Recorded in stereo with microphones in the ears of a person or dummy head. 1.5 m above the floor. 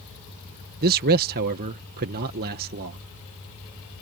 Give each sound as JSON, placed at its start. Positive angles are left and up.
{"t": 0.8, "sound": "a man speaking", "side_deg": -50}